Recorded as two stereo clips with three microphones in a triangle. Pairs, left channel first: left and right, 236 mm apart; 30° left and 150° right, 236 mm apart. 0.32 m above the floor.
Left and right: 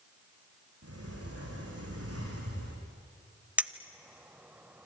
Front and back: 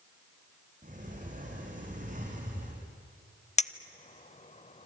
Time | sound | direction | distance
0.8 | a sliding door | 95° right | 5.5 m
3.6 | a clink | 10° right | 0.6 m